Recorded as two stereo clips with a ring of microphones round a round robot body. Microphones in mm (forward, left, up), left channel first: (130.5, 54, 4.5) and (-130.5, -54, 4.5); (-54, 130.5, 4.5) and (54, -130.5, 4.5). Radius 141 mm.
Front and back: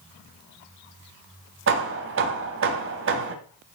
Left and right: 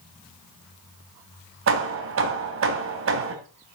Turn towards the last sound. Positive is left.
turn(degrees=-110)